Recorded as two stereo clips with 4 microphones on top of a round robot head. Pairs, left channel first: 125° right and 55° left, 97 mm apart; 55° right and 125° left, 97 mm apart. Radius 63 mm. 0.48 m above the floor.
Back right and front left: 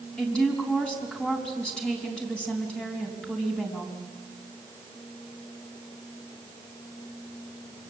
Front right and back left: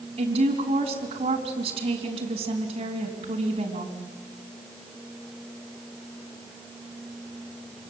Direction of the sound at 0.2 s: 155° left.